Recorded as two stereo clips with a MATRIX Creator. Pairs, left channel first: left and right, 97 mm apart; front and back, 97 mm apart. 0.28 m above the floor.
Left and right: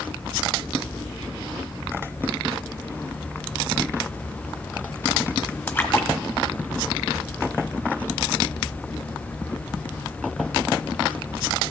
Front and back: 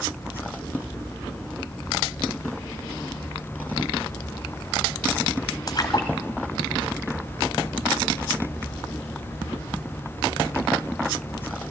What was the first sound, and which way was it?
A splash, 35° left.